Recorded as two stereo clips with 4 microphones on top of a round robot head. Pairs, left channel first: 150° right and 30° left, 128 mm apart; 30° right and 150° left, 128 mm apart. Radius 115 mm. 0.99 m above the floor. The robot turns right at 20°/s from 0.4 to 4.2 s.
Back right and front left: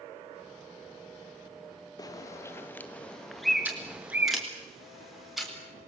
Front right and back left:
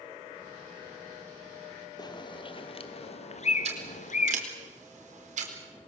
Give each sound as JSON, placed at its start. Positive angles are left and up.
{"t": 2.0, "sound": "a bird", "azimuth_deg": -90, "distance_m": 1.8}
{"t": 3.6, "sound": "scissors", "azimuth_deg": 110, "distance_m": 4.0}